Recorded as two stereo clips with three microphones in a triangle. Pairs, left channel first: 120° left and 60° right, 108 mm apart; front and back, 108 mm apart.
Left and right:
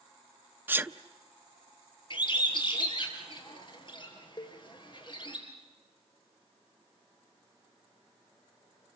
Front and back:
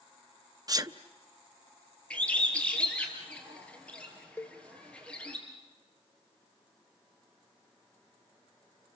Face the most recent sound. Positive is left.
turn(degrees=70)